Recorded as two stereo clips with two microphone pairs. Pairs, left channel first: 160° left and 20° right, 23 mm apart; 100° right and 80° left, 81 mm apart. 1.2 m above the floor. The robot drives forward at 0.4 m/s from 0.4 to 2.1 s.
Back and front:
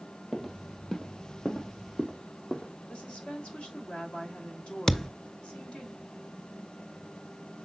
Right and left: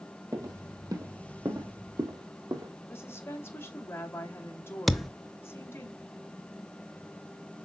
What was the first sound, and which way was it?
Footsteps, 80° left.